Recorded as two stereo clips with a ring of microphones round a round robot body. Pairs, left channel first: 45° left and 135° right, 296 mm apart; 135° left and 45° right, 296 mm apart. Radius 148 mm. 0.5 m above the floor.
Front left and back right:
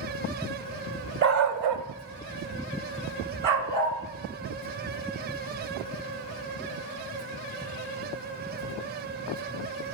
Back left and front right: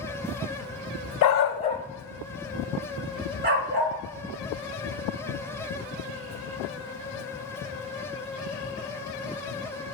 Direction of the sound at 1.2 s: 170° left.